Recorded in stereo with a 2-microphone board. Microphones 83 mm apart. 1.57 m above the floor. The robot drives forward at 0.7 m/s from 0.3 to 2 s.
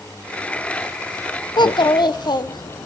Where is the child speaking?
60° left (ahead or behind), 0.7 m.